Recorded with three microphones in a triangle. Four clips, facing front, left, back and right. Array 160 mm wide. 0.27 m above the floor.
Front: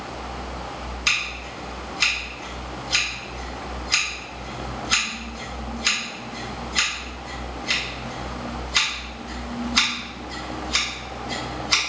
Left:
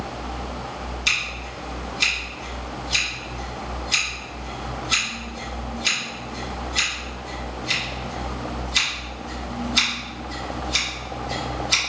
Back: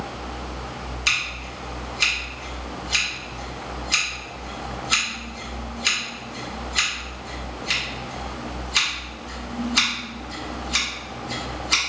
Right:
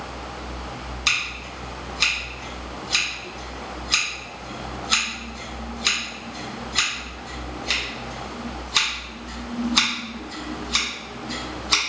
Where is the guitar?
No guitar in this recording.